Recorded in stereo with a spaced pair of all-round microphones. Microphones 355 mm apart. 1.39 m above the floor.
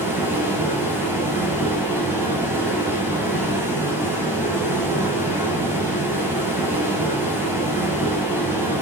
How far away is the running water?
About 9.5 m.